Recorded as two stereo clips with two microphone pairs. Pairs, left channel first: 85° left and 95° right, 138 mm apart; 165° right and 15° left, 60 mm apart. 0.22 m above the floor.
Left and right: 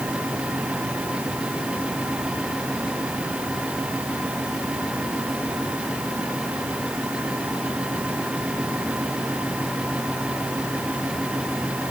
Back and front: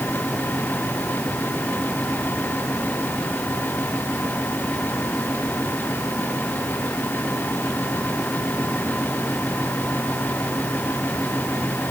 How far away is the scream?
I don't hear a scream.